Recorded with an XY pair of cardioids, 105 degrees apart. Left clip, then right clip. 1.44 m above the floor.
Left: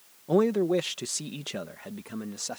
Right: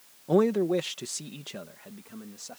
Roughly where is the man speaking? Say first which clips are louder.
Even; ahead.